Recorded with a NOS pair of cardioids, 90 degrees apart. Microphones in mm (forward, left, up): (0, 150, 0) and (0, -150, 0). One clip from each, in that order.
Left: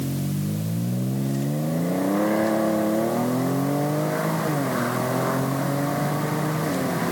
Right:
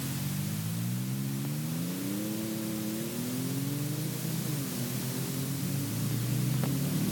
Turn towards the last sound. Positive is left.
No sound to turn to.